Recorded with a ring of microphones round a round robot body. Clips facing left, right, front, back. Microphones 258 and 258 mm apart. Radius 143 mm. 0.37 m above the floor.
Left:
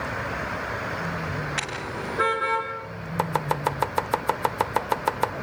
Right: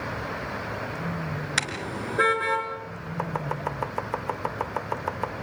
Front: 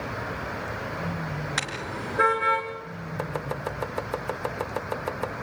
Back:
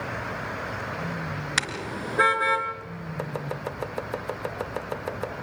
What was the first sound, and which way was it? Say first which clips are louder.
A car horn: even, back 1 dB; 130° right.